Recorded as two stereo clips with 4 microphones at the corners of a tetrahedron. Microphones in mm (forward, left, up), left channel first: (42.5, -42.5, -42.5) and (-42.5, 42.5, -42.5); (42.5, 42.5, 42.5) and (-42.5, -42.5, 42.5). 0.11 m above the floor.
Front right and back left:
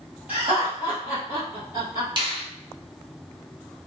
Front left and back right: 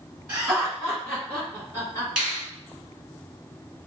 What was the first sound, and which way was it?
Laughter, straight behind.